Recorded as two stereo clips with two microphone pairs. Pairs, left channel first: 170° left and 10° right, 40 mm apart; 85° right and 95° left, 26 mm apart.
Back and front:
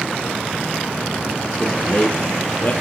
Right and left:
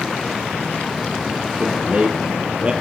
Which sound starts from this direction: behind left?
A man speaking, at 1.6 s.